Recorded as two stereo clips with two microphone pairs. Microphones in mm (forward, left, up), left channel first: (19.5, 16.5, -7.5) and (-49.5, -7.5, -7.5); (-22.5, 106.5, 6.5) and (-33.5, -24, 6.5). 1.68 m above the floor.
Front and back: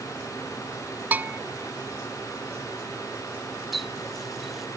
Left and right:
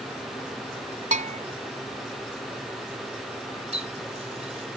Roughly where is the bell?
Right.